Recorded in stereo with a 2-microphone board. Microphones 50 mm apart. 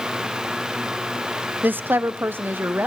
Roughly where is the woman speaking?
Right.